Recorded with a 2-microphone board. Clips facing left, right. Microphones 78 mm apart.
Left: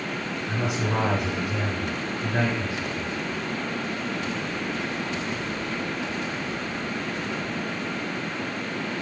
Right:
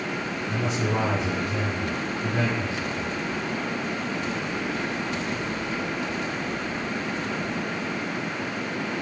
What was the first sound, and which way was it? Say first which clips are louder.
A man speaking: right 1 dB; 70° left (ahead or behind).